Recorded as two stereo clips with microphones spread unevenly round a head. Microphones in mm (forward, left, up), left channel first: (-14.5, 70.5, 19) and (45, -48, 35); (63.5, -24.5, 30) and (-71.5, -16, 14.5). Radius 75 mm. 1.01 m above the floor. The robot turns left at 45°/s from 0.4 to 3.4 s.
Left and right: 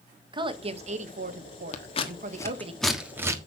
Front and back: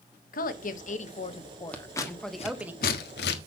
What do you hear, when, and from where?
0.3 s a woman speaking: 10° right, 1.4 m; by 2.7 s 115° right, 1.4 m
1.7 s scissors: 80° left, 1.4 m; by 3.4 s 5° left, 1.4 m